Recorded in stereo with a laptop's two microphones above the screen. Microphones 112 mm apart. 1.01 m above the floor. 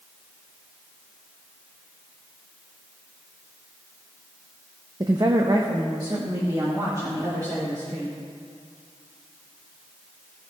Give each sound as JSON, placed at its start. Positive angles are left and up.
{"t": 5.0, "sound": "a woman speaking", "side_deg": -40, "distance_m": 0.7}